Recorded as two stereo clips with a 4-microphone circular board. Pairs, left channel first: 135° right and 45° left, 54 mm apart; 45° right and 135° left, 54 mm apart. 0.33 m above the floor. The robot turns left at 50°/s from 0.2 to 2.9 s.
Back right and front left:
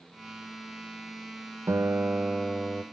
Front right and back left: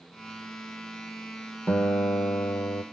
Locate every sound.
1.7 s a guitar: 5° left, 0.6 m; by 2.8 s 50° right, 0.6 m